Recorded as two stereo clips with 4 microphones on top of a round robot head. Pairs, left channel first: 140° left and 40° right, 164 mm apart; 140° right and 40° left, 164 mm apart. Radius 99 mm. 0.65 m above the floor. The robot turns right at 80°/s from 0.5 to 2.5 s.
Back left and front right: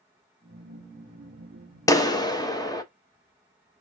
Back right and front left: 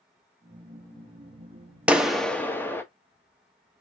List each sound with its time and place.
1.9 s a clap: 110° left, 0.8 m; by 2.8 s 160° left, 0.8 m